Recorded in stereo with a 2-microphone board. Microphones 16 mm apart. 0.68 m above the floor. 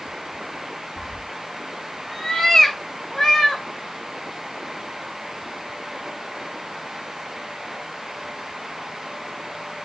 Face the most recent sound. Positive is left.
turn(degrees=30)  # may be behind; listen again after turning